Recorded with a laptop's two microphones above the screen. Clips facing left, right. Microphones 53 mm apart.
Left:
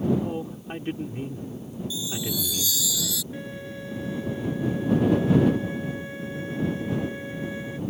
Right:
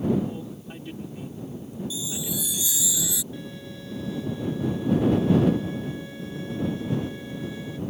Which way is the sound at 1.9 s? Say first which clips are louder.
Left 5 dB; 20° right (ahead or behind).